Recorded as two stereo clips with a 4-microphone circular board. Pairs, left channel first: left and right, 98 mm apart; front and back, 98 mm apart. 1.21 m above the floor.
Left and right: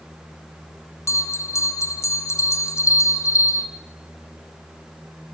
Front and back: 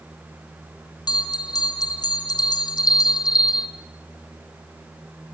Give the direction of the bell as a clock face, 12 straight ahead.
11 o'clock.